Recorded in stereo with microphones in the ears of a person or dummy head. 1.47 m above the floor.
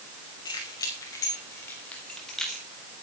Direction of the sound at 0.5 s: 25° left (ahead or behind).